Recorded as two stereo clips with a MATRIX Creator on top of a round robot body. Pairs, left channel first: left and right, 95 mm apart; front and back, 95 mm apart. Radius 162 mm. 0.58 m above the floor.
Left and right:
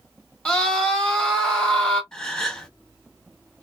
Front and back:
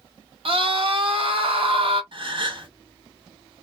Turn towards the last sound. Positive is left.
turn(degrees=175)